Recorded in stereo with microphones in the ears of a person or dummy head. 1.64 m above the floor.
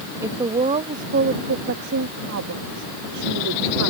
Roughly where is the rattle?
No rattle in this recording.